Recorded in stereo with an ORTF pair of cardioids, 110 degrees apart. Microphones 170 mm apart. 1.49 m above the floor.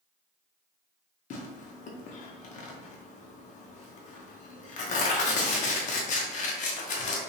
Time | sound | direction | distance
1.3 | tearing paper | 50° left | 0.7 m